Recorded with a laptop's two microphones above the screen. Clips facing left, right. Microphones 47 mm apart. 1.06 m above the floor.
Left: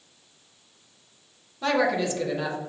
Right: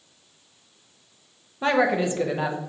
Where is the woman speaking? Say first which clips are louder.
Right 2 dB; 25° right (ahead or behind), 0.5 m.